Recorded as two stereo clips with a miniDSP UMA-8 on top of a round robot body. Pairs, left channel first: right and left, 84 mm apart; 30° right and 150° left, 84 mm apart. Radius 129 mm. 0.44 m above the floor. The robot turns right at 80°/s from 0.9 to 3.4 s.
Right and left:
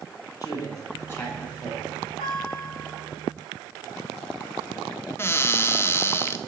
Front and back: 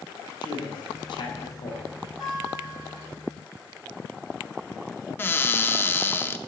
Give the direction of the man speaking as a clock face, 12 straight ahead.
2 o'clock.